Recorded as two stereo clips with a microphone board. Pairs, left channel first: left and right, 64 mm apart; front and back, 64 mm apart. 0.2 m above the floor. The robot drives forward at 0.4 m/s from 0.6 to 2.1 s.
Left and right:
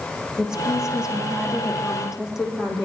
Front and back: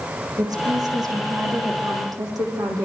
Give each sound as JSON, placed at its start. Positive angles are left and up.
{"t": 0.4, "sound": "a woman speaking", "azimuth_deg": -170, "distance_m": 8.5}